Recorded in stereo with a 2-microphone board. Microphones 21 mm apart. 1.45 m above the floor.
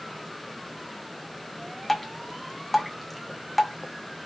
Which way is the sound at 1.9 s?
5° left (ahead or behind).